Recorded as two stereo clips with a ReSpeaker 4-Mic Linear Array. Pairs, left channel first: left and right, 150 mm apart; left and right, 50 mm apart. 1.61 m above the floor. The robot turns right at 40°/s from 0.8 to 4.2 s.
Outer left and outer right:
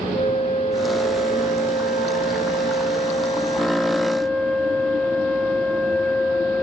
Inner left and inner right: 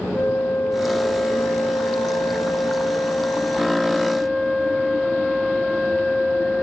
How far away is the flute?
About 0.5 m.